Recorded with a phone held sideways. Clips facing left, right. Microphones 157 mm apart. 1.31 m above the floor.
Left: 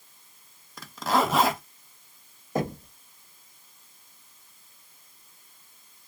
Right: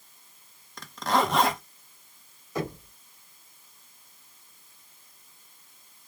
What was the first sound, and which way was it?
A zipper, 5° left (ahead or behind).